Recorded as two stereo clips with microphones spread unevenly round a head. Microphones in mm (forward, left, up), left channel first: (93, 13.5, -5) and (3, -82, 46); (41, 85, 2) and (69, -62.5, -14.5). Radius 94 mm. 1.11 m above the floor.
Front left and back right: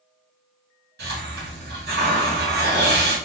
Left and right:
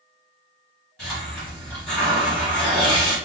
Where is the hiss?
170° right, 2.0 m.